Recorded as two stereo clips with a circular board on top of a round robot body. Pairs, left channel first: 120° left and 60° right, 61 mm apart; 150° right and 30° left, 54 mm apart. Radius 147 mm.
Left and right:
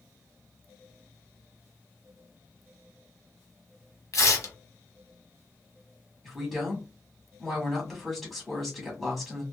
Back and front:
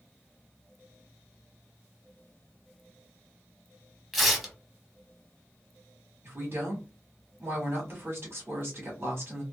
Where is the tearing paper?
115° left, 1.2 m.